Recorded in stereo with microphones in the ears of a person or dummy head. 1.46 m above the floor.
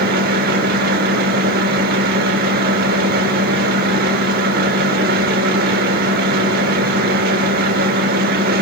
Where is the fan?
55° right (ahead or behind), 1.2 m.